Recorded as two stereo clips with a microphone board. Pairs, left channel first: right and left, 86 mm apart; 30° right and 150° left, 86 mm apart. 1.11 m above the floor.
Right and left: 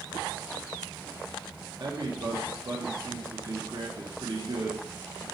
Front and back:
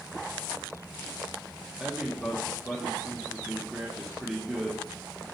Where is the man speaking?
65° left, 1.1 m.